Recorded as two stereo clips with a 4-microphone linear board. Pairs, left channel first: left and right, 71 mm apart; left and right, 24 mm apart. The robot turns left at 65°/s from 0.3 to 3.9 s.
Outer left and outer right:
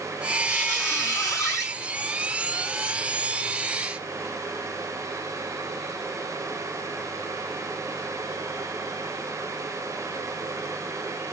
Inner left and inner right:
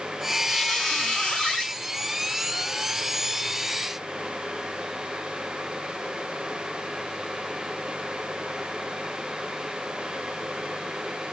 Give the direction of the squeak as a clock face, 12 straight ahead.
6 o'clock.